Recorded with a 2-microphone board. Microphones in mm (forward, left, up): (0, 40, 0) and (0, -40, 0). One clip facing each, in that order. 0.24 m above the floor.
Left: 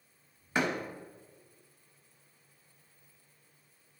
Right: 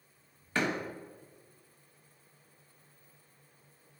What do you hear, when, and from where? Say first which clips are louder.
0.6 s a door slam: left 1 dB; 15° left (ahead or behind), 1.0 m